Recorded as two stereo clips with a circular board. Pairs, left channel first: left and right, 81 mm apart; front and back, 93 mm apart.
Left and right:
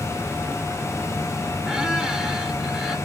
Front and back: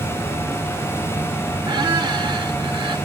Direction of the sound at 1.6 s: 170° right.